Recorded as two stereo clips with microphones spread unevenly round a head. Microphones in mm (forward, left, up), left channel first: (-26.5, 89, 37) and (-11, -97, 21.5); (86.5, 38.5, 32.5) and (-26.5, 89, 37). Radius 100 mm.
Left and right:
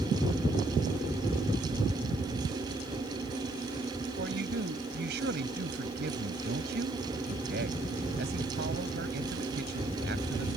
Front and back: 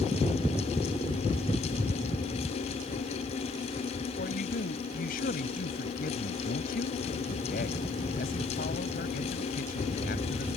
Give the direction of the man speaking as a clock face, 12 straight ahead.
1 o'clock.